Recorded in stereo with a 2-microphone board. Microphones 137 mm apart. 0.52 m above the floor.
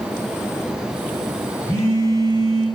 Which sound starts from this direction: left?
A phone buzzing, at 1.7 s.